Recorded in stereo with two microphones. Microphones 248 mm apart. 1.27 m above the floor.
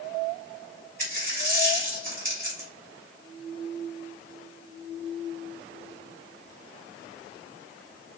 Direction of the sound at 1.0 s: 35° right (ahead or behind).